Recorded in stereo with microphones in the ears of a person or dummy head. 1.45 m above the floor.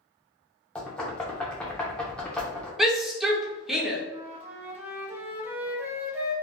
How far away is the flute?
About 0.5 m.